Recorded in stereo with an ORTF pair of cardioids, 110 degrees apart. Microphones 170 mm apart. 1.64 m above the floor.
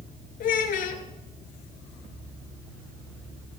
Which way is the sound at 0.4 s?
65° left.